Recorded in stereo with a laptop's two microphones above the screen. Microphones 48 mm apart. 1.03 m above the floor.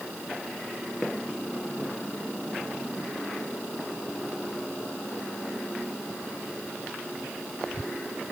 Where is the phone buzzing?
I don't hear a phone buzzing.